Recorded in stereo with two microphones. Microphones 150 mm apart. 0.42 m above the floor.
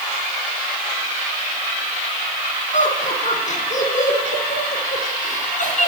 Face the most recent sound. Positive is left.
turn(degrees=60)  # may be behind; listen again after turning